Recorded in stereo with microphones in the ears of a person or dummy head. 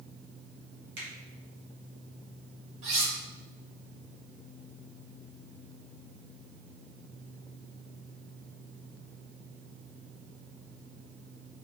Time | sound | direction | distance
1.0 | a finger snap | 65° right (ahead or behind) | 1.9 m
2.8 | cutlery clinking | 35° right (ahead or behind) | 1.7 m